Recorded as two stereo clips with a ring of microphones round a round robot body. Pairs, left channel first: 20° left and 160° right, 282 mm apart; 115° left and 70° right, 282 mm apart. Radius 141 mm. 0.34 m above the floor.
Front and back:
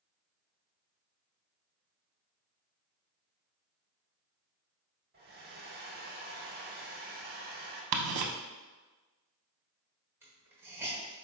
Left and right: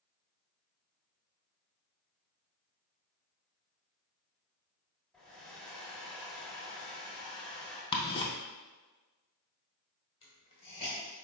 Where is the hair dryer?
160° right, 0.7 m.